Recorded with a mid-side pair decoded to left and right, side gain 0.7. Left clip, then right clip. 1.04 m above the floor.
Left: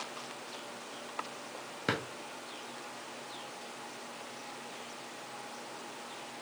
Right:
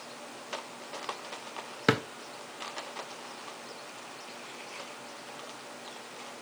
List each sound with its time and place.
1.9 s a drawer: 35° right, 0.5 m